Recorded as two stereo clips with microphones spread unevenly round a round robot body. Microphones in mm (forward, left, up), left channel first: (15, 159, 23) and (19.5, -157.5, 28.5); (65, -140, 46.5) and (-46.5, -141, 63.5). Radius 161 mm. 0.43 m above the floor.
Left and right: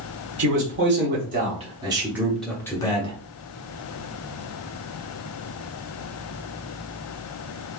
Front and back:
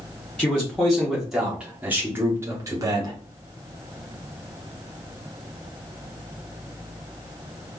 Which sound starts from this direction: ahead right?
A man speaking, at 0.4 s.